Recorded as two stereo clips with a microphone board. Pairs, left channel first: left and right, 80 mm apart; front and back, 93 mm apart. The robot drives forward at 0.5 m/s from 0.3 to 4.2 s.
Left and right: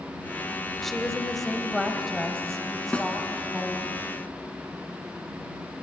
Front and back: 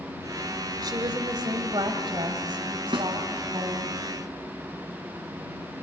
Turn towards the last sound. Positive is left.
turn(degrees=170)